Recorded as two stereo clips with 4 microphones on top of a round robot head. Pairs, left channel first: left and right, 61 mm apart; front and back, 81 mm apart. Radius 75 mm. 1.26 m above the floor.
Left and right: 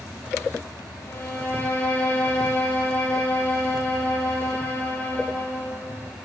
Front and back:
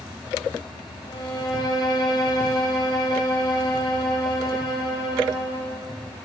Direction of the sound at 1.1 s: 35° left.